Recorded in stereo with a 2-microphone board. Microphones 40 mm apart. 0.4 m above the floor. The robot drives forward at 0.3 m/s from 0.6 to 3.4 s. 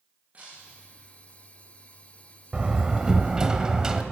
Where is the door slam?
25° right (ahead or behind), 1.2 m; by 4.0 s 20° right (ahead or behind), 1.4 m.